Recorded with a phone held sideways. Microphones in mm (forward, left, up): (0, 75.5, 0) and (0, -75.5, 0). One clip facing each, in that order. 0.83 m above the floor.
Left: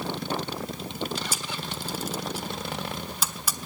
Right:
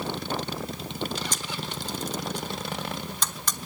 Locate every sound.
1.3 s a camera shutter: 10° left (ahead or behind), 1.1 m